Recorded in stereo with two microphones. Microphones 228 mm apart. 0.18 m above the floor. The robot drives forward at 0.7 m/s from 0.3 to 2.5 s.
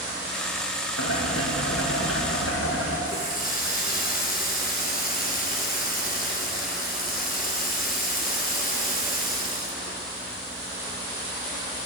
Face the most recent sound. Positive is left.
turn(degrees=35)  # may be behind; listen again after turning